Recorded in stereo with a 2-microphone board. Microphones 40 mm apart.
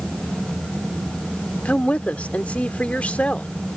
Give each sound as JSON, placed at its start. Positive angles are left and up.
{"t": 1.6, "sound": "a woman speaking", "side_deg": 35}